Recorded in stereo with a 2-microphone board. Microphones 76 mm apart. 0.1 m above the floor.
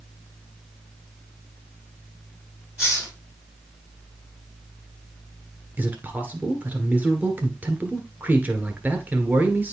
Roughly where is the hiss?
Centre.